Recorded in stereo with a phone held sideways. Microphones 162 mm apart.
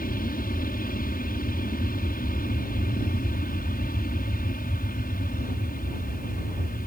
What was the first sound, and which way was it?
An aircraft, 65° left (ahead or behind).